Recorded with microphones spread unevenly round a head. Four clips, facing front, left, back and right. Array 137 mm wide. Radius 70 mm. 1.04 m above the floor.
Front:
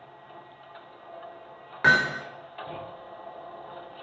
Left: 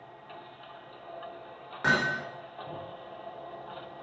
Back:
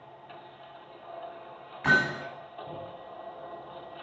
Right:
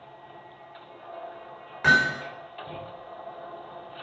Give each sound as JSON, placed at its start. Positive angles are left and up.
{"t": 1.8, "sound": "hammering", "azimuth_deg": 5, "distance_m": 4.5}